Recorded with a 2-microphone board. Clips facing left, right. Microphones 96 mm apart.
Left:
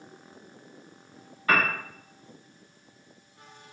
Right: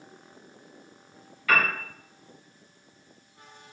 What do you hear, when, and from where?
1.5 s a piano: 40° left (ahead or behind), 1.2 m